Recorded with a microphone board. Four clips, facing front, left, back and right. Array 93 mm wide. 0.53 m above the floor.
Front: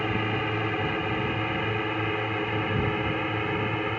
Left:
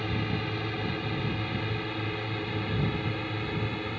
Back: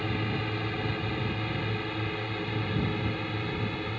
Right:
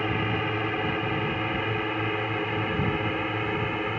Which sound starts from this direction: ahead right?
A drone, at 0.0 s.